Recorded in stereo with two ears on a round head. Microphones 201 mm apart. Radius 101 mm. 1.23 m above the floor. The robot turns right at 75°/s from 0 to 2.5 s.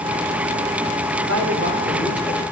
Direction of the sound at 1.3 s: 65° right.